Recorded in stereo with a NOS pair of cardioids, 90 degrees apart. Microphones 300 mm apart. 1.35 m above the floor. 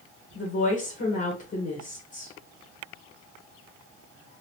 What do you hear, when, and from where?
0.3 s a woman speaking: 50° left, 1.2 m